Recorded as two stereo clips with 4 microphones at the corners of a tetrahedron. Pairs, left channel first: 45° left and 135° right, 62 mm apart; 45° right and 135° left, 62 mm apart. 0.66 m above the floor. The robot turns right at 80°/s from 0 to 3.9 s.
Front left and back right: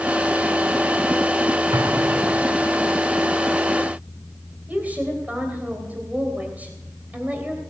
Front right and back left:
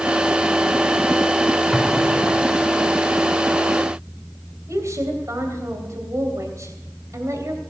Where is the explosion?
145° right, 1.1 m; by 2.7 s 65° right, 1.1 m.